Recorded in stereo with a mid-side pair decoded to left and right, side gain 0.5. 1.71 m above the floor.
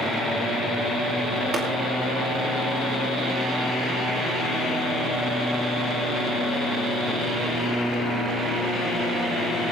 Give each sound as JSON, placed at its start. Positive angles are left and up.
{"t": 1.5, "sound": "tapping", "azimuth_deg": -45, "distance_m": 4.5}